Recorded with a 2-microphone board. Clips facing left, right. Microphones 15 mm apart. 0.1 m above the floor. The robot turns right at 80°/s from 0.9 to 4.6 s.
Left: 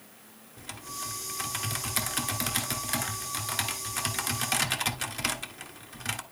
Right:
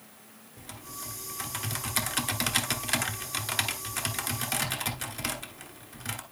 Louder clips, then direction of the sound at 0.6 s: Left 4 dB; 20° left (ahead or behind).